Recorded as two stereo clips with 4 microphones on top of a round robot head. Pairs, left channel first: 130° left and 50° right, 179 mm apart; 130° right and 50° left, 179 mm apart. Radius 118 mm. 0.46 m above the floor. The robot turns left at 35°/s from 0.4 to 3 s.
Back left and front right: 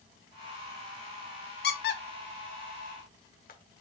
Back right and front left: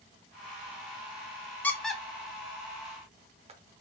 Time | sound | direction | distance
1.6 | a squeak | 150° left | 0.8 m